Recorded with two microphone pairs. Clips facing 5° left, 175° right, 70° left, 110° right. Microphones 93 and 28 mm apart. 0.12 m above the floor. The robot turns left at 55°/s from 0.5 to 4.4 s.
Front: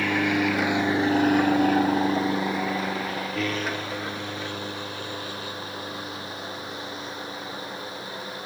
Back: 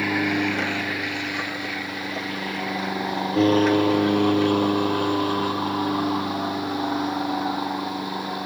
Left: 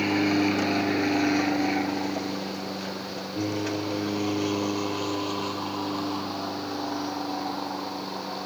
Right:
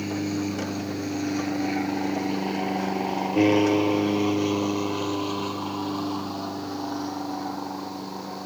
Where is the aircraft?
105° left; by 8.5 s 150° left.